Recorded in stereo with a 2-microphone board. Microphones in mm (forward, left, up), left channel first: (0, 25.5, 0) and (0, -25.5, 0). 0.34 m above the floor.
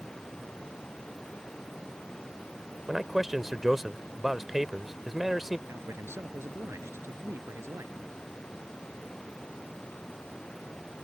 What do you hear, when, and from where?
0.0 s running water: 20° left (ahead or behind)
2.9 s a man speaking: 5° right (ahead or behind)
5.7 s a man speaking: 60° right (ahead or behind)